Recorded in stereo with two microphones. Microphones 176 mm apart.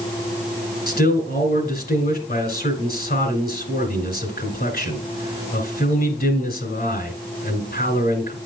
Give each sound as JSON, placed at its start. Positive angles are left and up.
{"t": 0.9, "sound": "a man speaking", "side_deg": 60, "distance_m": 2.0}